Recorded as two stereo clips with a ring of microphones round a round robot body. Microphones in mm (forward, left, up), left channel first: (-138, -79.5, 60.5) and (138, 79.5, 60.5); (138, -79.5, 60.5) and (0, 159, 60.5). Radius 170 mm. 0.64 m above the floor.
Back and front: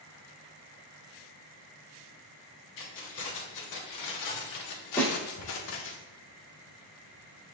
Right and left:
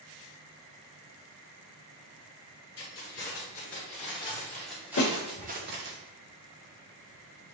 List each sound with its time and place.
2.8 s keys jangling: 115° right, 1.6 m; by 6.0 s 160° left, 0.8 m
5.0 s a snare drum: 65° right, 1.6 m